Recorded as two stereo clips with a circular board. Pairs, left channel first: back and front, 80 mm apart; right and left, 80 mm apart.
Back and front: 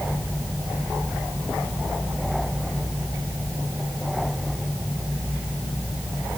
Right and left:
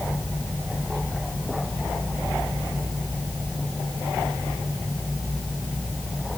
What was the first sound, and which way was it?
Only background noise.